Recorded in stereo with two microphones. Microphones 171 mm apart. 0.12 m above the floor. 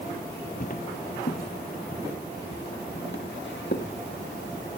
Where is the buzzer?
I don't hear a buzzer.